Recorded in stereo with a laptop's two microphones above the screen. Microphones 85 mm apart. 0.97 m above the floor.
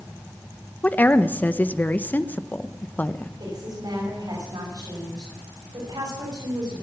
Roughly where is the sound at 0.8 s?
Centre.